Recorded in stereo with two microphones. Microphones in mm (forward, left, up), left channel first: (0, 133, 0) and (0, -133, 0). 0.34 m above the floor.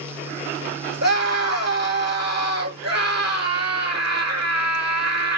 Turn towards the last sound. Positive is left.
turn(degrees=-75)  # may be behind; listen again after turning